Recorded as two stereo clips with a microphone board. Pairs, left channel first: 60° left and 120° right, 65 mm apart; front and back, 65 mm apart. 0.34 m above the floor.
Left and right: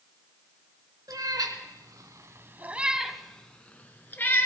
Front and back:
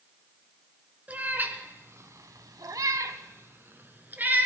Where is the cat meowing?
115° right, 1.3 m; by 4.5 s 120° left, 1.5 m.